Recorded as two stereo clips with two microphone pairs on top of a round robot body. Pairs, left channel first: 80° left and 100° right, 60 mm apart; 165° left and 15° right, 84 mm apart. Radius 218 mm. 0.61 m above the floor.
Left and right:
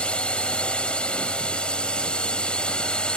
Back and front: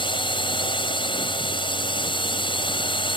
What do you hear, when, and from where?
0.0 s a drone: 150° left; by 3.2 s 155° left